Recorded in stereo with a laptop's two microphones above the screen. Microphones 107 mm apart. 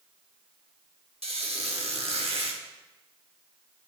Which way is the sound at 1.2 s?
70° right (ahead or behind).